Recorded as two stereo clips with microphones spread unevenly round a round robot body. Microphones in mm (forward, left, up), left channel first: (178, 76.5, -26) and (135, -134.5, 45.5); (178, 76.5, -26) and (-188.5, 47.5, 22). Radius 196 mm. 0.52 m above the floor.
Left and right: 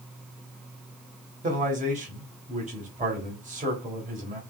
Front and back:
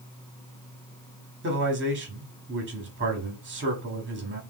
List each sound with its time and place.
1.4 s a man speaking: 155° right, 1.4 m